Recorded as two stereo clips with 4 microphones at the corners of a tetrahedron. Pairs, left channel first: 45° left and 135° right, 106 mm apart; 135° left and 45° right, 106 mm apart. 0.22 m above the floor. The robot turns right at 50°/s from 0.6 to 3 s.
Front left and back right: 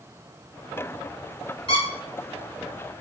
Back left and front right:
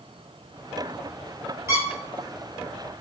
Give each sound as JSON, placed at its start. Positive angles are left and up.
{"t": 1.7, "sound": "a squeak", "azimuth_deg": 20, "distance_m": 0.8}